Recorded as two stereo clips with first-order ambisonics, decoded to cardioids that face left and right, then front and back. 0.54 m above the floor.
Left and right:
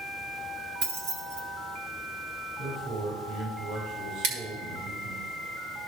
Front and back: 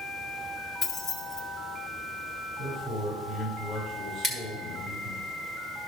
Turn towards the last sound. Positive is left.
turn(degrees=-105)